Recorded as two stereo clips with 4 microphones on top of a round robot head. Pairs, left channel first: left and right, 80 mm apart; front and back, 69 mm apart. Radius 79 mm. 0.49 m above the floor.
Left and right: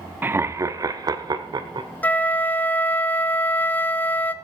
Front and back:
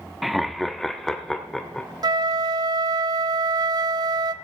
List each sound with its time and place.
0.2 s laughter: 95° right, 0.9 m; by 1.9 s 85° right, 1.8 m
2.0 s a flute: 160° left, 0.7 m